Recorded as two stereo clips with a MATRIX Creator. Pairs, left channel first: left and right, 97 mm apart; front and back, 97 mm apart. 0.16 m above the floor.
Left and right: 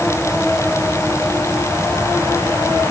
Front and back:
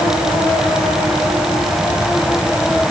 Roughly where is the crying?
No crying in this recording.